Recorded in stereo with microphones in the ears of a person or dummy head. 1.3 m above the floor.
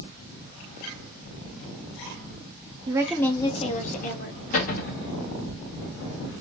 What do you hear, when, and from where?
2.9 s a woman speaking: 20° right (ahead or behind), 0.5 m; by 4.4 s 45° left (ahead or behind), 1.4 m
4.5 s a cupboard door: 45° left (ahead or behind), 1.1 m